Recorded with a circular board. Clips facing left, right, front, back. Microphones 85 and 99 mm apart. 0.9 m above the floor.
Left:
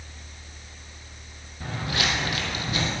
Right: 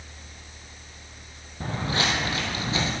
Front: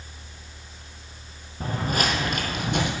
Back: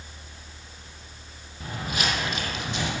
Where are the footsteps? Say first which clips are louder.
Right 2 dB, front 4 dB; 45° right, 1.5 m; by 2.9 s 25° right, 2 m.